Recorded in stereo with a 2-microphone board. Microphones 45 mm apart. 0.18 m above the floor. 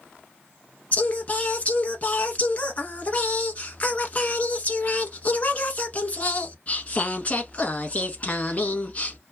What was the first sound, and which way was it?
Singing, 35° left (ahead or behind).